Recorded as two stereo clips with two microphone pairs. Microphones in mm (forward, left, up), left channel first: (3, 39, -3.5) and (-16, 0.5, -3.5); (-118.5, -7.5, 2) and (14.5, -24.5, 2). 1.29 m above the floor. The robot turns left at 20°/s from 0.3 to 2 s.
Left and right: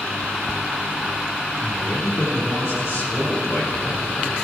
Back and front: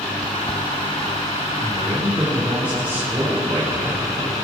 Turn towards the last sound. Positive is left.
turn(degrees=70)